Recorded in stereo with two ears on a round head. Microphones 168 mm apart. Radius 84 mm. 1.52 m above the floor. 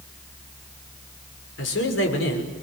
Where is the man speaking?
80° left, 6.5 m.